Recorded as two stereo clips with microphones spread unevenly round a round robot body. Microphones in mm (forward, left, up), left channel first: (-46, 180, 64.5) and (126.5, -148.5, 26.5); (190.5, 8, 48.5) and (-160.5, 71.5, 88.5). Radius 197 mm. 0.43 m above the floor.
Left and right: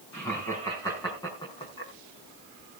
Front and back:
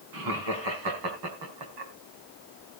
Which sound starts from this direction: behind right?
Laughter, at 0.1 s.